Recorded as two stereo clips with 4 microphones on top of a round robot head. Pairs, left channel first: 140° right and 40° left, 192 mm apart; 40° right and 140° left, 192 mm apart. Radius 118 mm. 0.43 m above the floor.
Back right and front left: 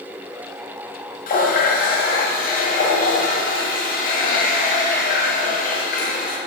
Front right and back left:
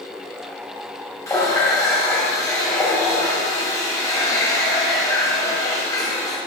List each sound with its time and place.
1.3 s a running tap: 110° right, 0.9 m